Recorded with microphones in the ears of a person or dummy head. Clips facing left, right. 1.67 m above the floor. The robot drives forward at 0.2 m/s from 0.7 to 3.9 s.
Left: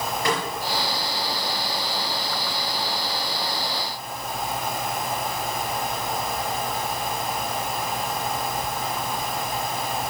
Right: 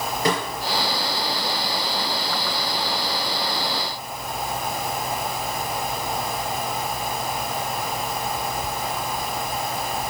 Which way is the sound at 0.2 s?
20° right (ahead or behind).